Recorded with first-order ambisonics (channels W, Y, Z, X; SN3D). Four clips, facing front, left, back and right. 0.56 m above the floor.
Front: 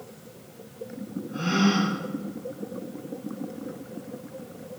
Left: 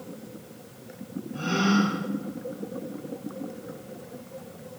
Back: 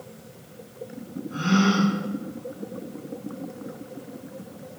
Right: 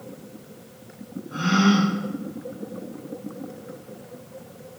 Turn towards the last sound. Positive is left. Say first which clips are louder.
# right 4 dB, back 2 dB
turn(degrees=-110)